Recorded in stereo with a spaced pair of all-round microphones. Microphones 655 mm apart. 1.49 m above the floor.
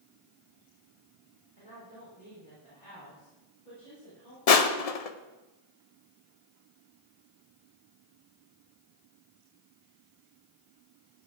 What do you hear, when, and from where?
1.6 s a woman speaking: 60° left (ahead or behind), 4.5 m
4.5 s crushing: 65° left (ahead or behind), 0.7 m